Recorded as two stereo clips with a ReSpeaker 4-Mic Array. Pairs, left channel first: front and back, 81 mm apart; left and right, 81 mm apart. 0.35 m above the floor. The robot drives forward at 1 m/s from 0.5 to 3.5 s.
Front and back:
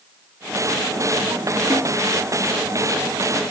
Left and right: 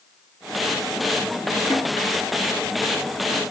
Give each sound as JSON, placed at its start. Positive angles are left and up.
{"t": 1.7, "sound": "a snare drum", "azimuth_deg": 135, "distance_m": 5.5}